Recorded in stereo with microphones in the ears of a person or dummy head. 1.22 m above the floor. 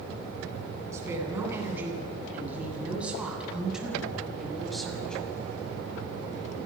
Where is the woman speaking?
20° right (ahead or behind), 9 m; by 5.2 s centre (ahead or behind), 6 m.